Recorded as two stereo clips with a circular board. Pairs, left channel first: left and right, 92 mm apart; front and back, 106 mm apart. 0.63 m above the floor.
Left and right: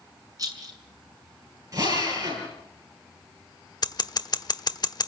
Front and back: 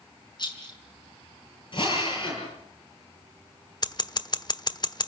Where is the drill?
40° right, 9 m.